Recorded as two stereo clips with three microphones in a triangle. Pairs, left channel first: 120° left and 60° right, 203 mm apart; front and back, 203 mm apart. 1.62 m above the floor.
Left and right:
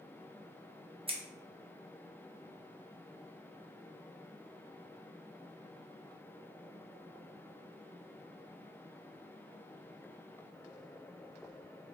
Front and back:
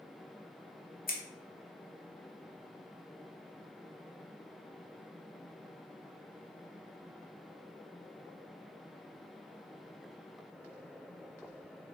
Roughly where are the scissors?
Ahead.